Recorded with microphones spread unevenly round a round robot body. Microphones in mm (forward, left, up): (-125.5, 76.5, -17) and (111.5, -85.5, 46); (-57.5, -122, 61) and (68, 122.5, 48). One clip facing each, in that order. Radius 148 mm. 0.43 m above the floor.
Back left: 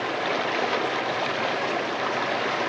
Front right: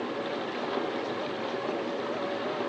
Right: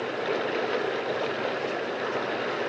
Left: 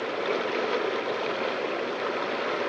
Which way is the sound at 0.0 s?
150° left.